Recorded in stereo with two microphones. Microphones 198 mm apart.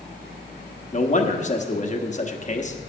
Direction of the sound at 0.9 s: 35° left (ahead or behind).